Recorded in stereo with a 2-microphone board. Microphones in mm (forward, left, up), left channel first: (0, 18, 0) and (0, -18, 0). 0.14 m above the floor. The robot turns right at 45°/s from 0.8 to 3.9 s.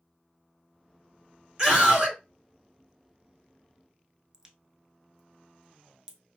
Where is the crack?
15° right (ahead or behind), 0.6 m.